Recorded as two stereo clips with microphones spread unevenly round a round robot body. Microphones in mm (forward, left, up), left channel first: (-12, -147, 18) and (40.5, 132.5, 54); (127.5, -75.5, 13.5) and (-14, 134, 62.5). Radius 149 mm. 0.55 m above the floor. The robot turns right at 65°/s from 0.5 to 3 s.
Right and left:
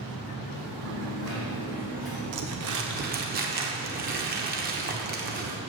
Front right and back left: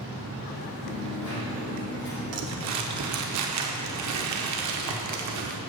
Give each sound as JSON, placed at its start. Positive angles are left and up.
{"t": 0.8, "sound": "a dropped coin", "azimuth_deg": -90, "distance_m": 4.0}
{"t": 2.3, "sound": "crumpling", "azimuth_deg": 95, "distance_m": 1.1}